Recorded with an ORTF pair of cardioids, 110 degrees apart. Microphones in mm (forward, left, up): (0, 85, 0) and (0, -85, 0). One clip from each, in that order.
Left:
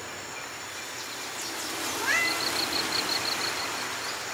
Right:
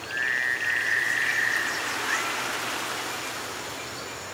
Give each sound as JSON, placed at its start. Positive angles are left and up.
{"t": 2.0, "sound": "a cat meowing", "azimuth_deg": 55, "distance_m": 2.0}